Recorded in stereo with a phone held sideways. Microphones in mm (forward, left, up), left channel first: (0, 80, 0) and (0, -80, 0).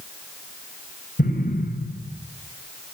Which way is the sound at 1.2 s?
65° left (ahead or behind).